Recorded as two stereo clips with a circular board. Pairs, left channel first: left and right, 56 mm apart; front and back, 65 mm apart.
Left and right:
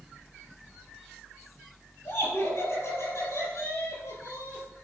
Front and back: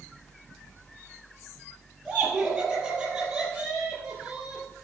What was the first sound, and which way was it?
Laughter, 100° left.